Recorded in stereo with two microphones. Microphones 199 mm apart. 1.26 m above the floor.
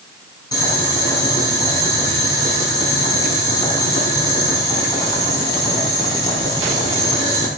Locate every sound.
0.5 s boiling: 20° left (ahead or behind), 5 m